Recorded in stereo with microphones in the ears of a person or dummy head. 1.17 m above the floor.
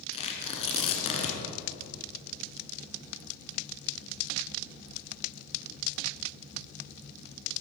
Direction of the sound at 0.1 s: 25° left (ahead or behind).